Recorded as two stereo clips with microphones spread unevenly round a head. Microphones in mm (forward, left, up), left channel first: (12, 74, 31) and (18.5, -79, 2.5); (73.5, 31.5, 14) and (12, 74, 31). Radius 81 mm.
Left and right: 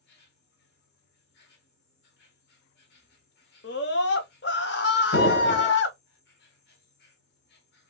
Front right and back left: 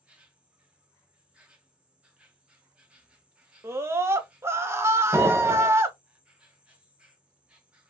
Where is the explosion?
75° left, 1.0 m.